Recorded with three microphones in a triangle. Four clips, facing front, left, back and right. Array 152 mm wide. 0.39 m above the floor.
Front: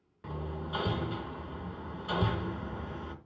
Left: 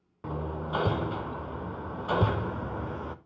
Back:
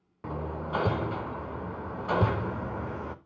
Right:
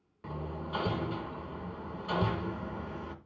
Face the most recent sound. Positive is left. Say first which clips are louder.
# left 5 dB, back 5 dB
turn(degrees=140)